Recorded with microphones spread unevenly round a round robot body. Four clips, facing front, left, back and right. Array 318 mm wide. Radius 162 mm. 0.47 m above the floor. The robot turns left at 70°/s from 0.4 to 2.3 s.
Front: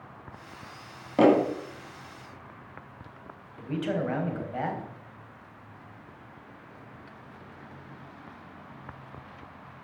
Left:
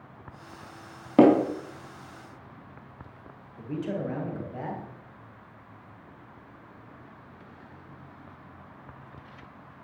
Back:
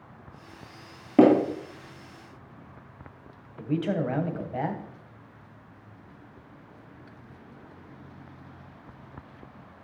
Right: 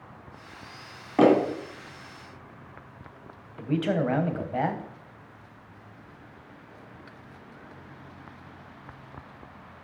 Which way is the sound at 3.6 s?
85° right.